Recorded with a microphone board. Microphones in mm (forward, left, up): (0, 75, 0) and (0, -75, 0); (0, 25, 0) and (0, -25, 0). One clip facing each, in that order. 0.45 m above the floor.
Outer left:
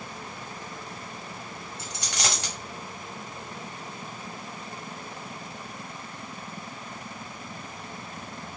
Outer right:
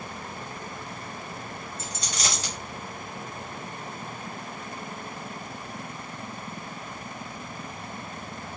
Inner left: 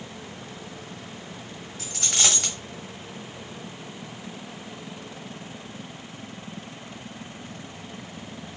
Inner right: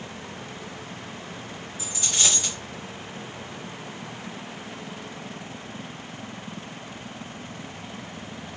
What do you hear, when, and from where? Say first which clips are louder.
1.8 s a dropped coin: outer left 2 dB, inner left 1 dB; 65° left (ahead or behind), 1.1 m